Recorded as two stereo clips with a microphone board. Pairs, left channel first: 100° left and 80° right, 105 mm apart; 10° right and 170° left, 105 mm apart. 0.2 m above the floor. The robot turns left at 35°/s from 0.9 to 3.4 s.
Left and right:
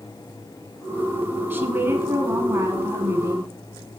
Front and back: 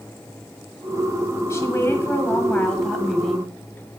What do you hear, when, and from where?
1.5 s a woman speaking: 45° right, 1.4 m; by 3.5 s 110° right, 1.4 m